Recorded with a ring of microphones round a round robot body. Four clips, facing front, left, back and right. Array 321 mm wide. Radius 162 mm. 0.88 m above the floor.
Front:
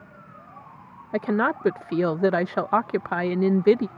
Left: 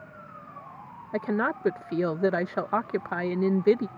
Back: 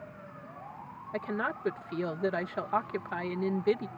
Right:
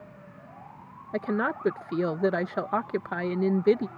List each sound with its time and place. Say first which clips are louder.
1.1 s a woman speaking: left 1 dB, front 10 dB; straight ahead